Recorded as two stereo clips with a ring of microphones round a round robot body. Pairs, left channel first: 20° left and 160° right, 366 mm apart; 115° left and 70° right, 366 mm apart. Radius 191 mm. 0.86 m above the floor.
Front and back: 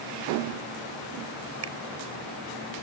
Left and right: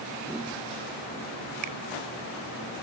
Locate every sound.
1.6 s a finger snap: 105° right